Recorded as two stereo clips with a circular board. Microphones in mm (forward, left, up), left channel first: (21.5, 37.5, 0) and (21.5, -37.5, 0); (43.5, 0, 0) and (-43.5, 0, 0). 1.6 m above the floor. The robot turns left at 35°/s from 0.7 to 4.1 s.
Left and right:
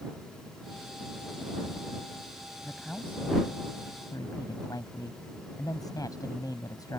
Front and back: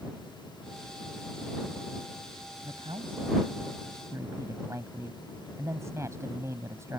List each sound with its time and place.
2.6 s a man speaking: 175° left; by 7.0 s 125° left